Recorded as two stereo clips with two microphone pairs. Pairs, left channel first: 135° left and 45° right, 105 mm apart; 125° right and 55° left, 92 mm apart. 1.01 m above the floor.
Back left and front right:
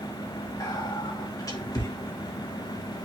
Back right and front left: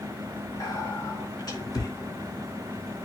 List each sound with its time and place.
0.6 s whispering: 170° right, 2.0 m